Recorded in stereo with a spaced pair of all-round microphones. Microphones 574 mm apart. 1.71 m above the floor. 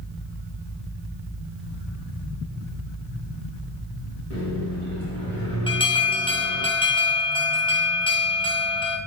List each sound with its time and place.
4.3 s a microwave: 20° right (ahead or behind), 1.7 m
5.7 s an alarm: 10° left (ahead or behind), 0.5 m